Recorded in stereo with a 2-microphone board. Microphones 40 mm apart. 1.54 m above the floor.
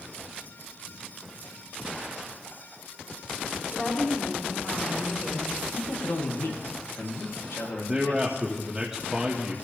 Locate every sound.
3.7 s a woman speaking: 35° left (ahead or behind), 5.5 m
5.8 s a man speaking: 85° left, 3 m
7.9 s a man speaking: 15° right (ahead or behind), 1.6 m